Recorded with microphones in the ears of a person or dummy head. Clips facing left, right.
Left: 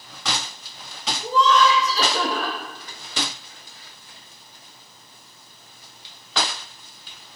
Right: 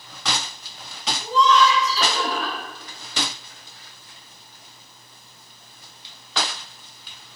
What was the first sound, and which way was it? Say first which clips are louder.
Laughter: even; 45° left (ahead or behind).